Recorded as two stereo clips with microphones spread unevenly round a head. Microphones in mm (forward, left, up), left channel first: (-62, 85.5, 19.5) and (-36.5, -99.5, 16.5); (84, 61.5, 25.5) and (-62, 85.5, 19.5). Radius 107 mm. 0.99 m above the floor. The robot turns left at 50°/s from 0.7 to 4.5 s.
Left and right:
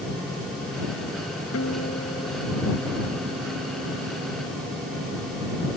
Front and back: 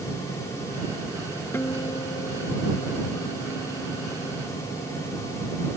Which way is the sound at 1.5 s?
70° left.